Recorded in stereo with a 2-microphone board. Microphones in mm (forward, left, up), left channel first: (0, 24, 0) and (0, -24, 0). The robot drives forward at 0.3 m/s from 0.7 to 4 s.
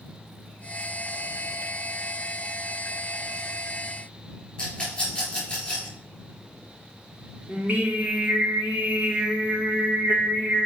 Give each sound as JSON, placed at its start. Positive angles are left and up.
{"t": 4.6, "sound": "a rattle", "side_deg": 20, "distance_m": 4.0}
{"t": 7.5, "sound": "singing", "side_deg": -30, "distance_m": 2.0}